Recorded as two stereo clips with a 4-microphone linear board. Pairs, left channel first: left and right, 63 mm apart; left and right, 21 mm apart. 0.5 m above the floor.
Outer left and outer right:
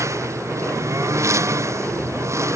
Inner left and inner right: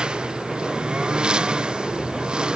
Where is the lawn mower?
50° right (ahead or behind).